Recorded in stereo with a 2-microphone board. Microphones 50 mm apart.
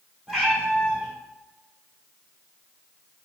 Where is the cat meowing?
5° left (ahead or behind), 2 m.